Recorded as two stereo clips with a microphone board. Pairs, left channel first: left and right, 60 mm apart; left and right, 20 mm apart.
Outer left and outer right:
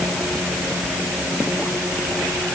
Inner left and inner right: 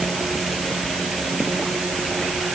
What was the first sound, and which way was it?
Only background noise.